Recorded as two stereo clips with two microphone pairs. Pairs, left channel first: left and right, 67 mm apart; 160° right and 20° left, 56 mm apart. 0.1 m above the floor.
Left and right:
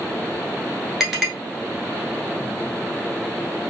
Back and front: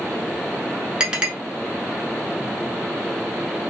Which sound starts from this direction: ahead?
A clink, at 1.0 s.